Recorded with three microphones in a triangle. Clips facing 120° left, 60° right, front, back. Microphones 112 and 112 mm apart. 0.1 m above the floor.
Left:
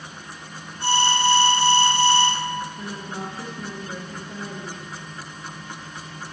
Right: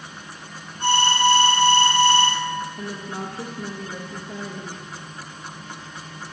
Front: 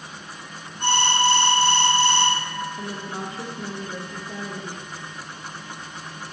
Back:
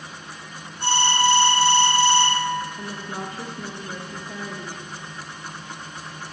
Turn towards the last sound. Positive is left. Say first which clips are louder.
# right 1 dB, front 1 dB
turn(degrees=-65)